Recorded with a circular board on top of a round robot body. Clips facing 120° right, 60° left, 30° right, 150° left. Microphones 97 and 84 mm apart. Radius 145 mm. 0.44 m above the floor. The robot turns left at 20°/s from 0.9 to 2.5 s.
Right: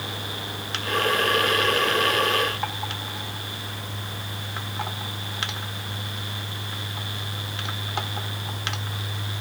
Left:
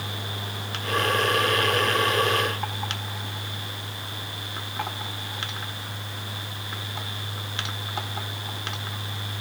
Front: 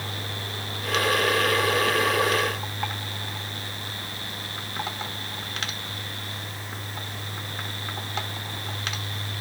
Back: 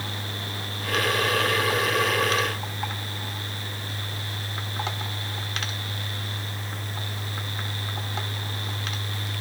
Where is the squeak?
I don't hear a squeak.